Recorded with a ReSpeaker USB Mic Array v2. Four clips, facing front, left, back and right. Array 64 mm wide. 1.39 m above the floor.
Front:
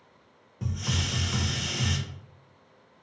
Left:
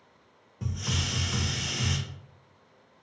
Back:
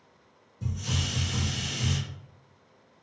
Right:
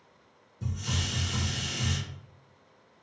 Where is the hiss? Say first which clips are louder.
Left 1 dB, front 1 dB; 45° left, 0.5 m.